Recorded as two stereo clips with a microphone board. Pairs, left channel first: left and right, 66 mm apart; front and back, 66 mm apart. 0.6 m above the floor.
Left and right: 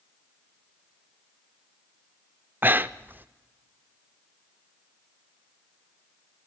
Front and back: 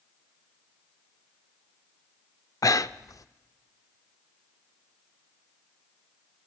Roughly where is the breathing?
Ahead right.